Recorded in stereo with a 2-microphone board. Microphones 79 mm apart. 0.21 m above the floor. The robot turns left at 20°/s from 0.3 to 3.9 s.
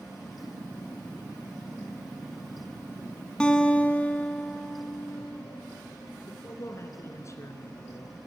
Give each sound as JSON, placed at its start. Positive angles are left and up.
{"t": 3.4, "sound": "a guitar", "side_deg": 15, "distance_m": 1.7}
{"t": 6.3, "sound": "a man speaking", "side_deg": 40, "distance_m": 2.5}